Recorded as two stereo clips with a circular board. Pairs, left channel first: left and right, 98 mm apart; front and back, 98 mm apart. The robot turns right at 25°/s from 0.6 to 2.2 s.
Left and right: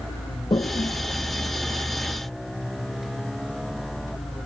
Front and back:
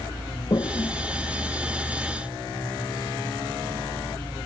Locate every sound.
0.5 s a toilet flushing: 50° left; by 2.2 s 90° left